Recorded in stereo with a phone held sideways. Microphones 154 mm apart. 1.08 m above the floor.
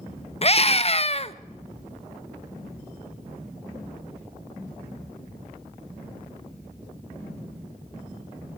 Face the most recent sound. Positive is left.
turn(degrees=40)  # may be behind; listen again after turning